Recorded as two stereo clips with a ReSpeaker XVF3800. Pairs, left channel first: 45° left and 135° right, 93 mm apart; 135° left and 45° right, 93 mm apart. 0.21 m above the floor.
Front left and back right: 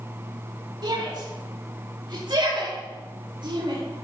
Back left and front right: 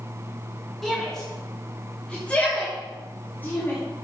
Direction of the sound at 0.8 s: 140° right.